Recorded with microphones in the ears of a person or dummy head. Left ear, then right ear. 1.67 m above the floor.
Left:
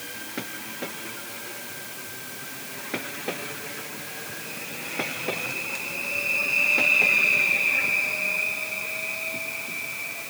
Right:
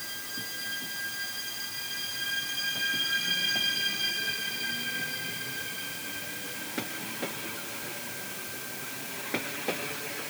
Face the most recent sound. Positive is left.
No sound to turn to.